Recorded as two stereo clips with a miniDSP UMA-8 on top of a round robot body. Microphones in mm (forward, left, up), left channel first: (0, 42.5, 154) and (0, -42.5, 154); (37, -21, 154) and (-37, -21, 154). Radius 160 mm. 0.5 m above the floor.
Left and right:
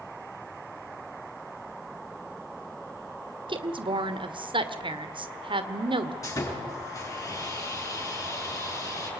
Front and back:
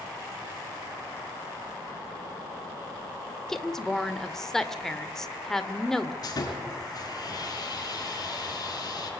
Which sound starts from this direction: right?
A woman speaking, at 3.5 s.